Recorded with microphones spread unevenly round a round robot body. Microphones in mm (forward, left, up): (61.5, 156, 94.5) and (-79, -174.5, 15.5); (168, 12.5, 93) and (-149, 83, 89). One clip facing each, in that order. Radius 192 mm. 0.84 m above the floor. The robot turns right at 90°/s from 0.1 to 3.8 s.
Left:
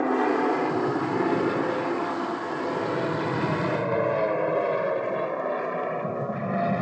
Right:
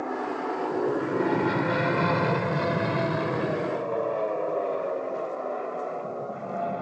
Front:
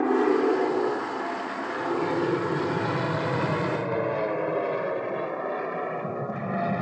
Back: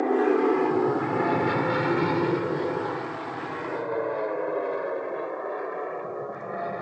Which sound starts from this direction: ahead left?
An aircraft, at 0.0 s.